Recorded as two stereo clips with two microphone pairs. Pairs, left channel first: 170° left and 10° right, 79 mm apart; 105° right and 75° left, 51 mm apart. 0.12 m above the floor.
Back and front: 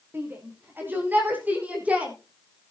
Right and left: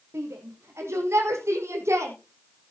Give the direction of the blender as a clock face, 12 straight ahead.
No blender in this recording.